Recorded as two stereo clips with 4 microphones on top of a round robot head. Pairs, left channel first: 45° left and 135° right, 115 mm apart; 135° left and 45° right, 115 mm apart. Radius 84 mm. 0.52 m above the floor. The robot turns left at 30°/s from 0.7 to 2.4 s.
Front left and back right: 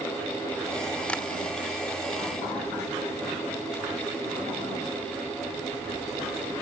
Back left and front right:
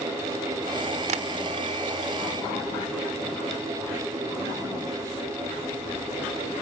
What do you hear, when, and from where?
1.1 s tapping: 35° right, 1.0 m; by 1.2 s 40° right, 1.0 m